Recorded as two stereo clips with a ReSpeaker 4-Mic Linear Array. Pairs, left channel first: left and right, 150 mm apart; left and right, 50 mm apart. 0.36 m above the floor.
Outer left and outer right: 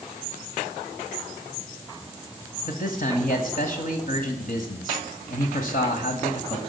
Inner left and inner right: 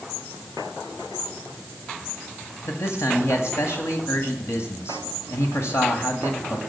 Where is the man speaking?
65° left (ahead or behind), 1.9 m.